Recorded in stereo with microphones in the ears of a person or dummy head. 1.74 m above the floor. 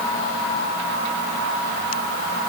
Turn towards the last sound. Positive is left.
No sound to turn to.